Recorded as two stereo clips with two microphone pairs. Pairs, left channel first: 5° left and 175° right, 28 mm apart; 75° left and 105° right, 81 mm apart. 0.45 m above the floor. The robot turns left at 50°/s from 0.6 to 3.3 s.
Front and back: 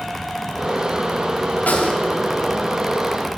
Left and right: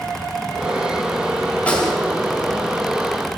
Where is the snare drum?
Straight ahead, 3.5 m; by 1.9 s 15° right, 3.5 m.